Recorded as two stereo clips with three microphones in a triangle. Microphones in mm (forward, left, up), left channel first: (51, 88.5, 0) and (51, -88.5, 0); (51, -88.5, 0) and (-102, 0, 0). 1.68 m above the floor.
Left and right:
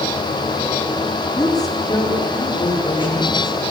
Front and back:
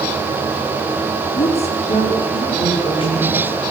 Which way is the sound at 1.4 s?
20° left.